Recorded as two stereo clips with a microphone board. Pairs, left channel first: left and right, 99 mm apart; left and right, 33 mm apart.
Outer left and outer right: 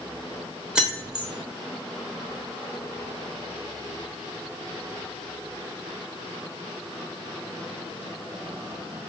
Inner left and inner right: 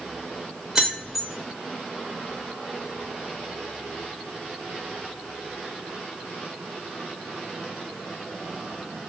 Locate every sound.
0.8 s keys jangling: 10° right (ahead or behind), 0.8 m